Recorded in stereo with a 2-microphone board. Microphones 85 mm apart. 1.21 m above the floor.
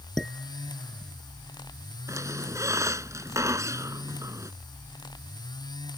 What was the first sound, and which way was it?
Dishes clattering, 5° left (ahead or behind).